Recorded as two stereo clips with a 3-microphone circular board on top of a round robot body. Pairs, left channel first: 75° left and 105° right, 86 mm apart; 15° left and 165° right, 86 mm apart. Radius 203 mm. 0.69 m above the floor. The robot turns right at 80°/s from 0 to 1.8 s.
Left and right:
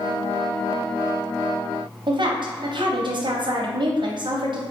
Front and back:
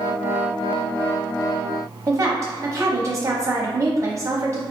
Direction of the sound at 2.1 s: 115° right.